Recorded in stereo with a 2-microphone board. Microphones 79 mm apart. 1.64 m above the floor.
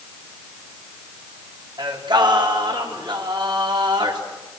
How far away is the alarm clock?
I don't hear an alarm clock.